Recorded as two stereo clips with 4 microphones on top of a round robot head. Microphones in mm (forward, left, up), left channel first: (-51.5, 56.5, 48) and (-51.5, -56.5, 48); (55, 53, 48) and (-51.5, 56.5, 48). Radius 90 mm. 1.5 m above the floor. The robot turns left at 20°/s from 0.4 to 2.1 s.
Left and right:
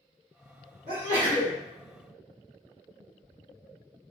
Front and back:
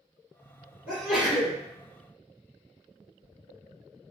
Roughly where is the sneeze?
Right.